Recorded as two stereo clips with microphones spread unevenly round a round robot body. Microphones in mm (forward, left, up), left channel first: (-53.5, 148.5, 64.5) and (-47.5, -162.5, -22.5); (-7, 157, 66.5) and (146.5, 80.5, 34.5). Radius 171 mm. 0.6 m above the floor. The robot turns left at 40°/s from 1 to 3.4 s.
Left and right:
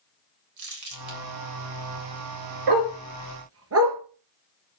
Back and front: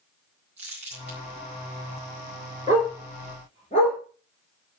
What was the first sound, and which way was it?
Crumpling, 80° right.